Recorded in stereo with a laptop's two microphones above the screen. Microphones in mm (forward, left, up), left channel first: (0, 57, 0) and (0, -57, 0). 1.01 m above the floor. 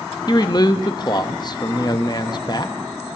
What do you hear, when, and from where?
0.3 s a man speaking: 40° left (ahead or behind), 1.0 m